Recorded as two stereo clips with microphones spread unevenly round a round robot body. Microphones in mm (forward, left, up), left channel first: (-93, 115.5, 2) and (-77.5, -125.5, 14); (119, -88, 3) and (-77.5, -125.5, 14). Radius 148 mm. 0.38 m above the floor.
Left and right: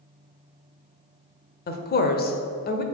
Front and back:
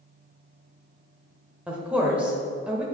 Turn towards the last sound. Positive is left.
turn(degrees=105)